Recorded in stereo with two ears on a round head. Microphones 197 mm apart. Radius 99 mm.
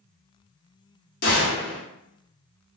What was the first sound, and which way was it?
A gunshot, 40° left (ahead or behind).